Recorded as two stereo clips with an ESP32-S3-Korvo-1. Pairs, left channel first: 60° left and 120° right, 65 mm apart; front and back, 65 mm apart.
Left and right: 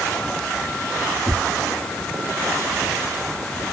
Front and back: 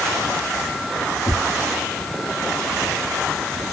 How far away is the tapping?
About 2 m.